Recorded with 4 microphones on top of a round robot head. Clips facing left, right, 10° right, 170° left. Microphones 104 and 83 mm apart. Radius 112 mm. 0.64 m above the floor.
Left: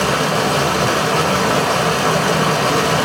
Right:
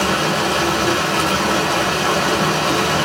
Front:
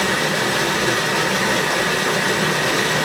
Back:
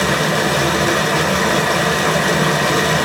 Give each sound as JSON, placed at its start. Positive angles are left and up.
{"t": 0.0, "sound": "running water", "azimuth_deg": 135, "distance_m": 0.8}